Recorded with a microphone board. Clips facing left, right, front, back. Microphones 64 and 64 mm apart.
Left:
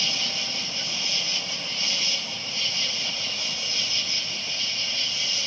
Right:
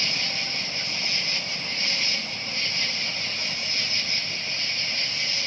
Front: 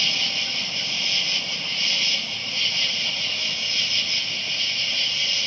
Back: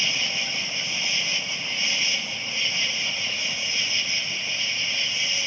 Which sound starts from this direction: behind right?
An insect, at 0.0 s.